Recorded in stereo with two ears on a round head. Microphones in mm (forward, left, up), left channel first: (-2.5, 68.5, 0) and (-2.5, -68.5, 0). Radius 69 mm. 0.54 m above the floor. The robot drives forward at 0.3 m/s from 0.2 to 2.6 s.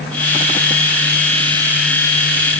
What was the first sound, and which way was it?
Only background noise.